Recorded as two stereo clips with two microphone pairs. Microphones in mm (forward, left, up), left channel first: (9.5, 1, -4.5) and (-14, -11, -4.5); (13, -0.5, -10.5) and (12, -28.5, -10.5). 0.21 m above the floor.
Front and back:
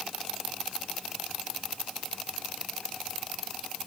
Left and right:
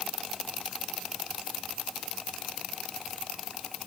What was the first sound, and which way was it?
Only background noise.